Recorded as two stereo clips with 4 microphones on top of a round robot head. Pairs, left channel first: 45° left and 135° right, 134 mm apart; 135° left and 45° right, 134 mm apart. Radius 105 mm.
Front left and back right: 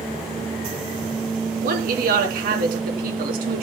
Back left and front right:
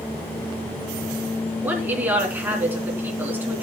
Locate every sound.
1.6 s a woman speaking: 120° right, 3.5 m